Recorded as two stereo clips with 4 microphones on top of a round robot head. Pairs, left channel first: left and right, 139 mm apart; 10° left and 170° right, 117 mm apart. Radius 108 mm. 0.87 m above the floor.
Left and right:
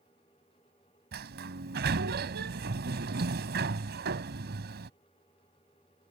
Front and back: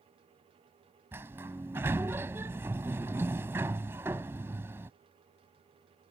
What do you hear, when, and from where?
1.1 s a sliding door: 95° right